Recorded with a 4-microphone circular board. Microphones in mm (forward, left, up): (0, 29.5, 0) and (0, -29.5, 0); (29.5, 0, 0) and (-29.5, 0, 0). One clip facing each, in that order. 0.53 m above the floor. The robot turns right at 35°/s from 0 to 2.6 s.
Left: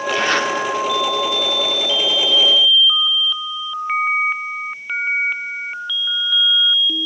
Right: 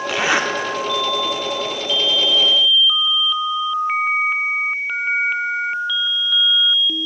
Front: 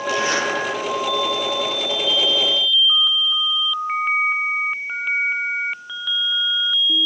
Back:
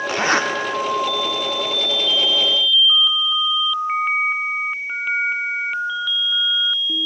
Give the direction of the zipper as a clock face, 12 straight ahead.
6 o'clock.